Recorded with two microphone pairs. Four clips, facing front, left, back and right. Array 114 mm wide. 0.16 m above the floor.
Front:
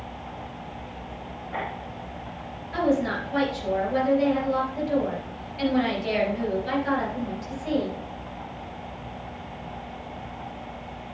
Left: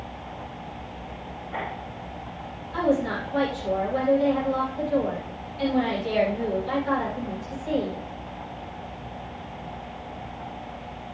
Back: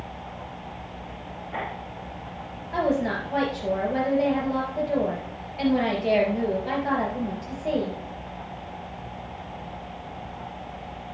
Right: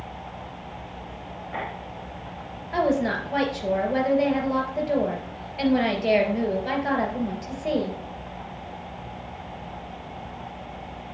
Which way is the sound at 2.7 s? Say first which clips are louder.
Right 1 dB, front 1 dB; 105° right.